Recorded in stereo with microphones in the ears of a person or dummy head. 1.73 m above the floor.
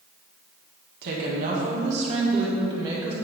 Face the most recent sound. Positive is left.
turn(degrees=-15)  # may be behind; listen again after turning